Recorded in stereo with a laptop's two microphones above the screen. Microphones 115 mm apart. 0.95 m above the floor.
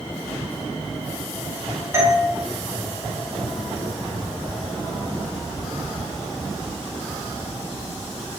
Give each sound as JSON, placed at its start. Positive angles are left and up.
{"t": 1.9, "sound": "a doorbell", "side_deg": -25, "distance_m": 0.7}